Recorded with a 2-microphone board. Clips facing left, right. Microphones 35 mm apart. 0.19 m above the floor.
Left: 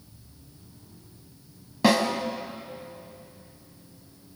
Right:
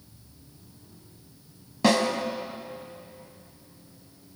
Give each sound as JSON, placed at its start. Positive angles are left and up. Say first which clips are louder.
{"t": 1.8, "sound": "a snare drum", "louder": "left 1 dB", "side_deg": 5, "distance_m": 1.6}